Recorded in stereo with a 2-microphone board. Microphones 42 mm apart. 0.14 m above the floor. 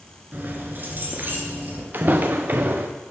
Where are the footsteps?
45° right (ahead or behind), 1.1 m.